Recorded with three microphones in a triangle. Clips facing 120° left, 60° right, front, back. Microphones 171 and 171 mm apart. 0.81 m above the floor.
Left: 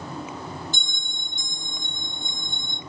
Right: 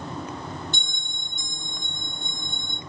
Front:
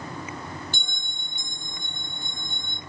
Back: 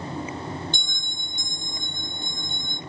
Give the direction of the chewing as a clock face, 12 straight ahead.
I don't hear chewing.